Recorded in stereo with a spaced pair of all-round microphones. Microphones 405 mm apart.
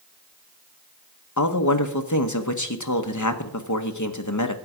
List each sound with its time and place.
1.4 s a man speaking: 45° left (ahead or behind), 1.1 m